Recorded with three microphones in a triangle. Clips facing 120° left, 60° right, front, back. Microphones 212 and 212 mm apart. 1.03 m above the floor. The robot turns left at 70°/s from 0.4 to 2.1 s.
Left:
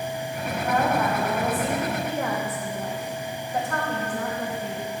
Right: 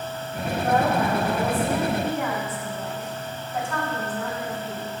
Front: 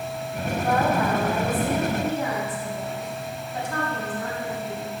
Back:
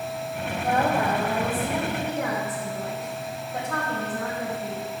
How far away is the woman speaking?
About 4.5 m.